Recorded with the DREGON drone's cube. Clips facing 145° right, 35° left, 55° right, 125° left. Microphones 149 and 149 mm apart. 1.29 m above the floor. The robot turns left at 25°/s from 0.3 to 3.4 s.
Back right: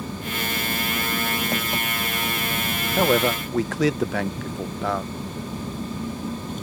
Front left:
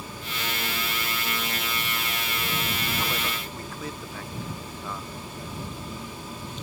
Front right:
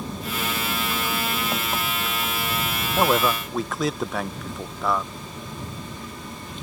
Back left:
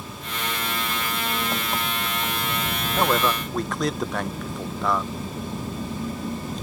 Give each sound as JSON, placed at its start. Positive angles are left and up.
{"t": 0.0, "sound": "an engine running", "azimuth_deg": -110}
{"t": 3.0, "sound": "a man speaking", "azimuth_deg": -135}